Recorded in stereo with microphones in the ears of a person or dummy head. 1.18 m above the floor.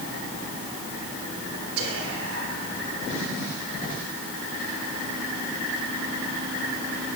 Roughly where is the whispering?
Right.